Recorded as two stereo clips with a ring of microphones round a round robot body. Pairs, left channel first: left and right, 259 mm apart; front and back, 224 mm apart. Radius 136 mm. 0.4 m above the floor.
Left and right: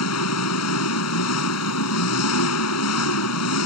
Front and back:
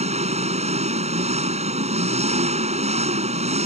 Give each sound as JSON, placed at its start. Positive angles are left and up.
{"t": 0.0, "sound": "an engine running", "azimuth_deg": 120}